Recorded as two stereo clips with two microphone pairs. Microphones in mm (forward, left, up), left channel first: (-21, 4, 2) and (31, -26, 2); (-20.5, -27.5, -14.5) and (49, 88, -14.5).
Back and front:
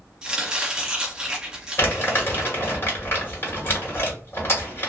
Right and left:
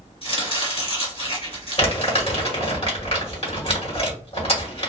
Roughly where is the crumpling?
Behind.